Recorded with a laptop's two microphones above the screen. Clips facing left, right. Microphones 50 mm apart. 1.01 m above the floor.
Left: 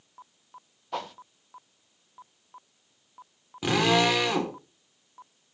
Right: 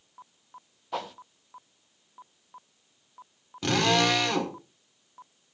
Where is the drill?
10° left (ahead or behind), 3 m.